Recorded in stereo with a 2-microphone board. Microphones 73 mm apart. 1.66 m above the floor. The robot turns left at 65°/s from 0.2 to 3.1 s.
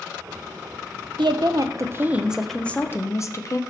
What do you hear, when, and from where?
1.2 s a woman speaking: 100° right, 0.8 m; by 3.6 s 135° left, 0.8 m